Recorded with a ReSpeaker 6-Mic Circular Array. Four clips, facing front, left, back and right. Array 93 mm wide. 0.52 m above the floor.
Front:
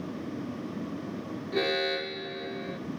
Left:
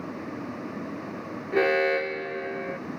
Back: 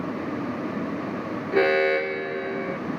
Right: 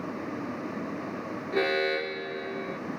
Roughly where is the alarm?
Behind left.